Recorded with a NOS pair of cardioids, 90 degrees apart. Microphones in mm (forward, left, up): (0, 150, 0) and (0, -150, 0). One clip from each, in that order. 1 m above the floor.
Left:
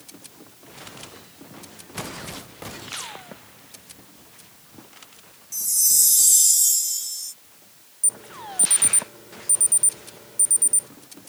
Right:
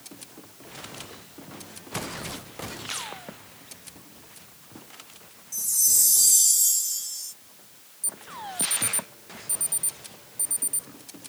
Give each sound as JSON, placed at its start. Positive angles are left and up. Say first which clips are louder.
{"t": 5.5, "sound": "a chime", "louder": "left 2 dB", "azimuth_deg": 20}
{"t": 8.0, "sound": "an alarm", "louder": "left 5 dB", "azimuth_deg": 60}